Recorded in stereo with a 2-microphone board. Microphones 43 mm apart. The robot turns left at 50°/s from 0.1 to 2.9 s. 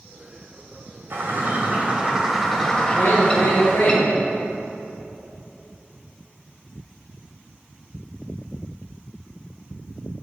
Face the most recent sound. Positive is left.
turn(degrees=70)  # may be behind; listen again after turning